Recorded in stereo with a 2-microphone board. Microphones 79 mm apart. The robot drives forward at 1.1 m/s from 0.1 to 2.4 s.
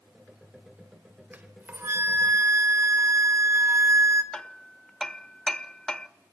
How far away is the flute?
About 2 m.